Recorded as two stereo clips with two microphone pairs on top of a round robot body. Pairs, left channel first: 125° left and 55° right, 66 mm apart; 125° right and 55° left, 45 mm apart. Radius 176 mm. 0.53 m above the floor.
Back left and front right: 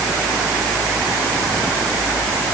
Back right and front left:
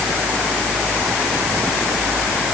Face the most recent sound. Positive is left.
No sound to turn to.